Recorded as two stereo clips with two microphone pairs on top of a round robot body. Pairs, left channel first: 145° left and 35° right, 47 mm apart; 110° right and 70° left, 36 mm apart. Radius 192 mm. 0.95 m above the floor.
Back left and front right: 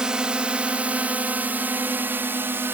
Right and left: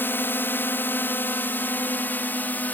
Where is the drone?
110° right; by 2.7 s 75° right.